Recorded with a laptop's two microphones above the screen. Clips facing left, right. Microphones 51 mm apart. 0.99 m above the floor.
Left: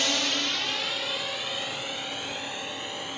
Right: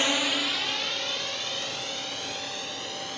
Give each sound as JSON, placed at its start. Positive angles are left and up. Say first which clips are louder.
{"t": 0.0, "sound": "a drone", "louder": "right 2 dB", "side_deg": -20}